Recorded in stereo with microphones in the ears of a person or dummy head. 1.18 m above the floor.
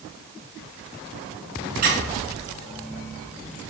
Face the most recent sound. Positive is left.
turn(degrees=-45)  # may be behind; listen again after turning